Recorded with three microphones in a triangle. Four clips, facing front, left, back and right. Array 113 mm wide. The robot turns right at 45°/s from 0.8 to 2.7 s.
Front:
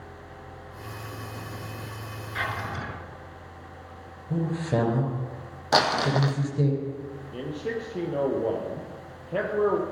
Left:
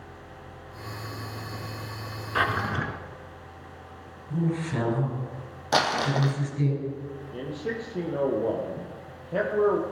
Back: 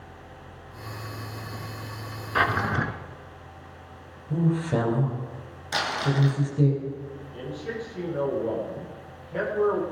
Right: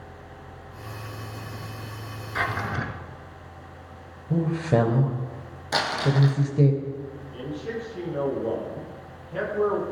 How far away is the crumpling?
About 2.5 m.